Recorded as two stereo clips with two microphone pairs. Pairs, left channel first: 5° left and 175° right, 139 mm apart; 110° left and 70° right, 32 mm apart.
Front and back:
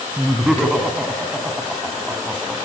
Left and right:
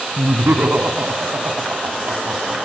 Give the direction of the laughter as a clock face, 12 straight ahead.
3 o'clock.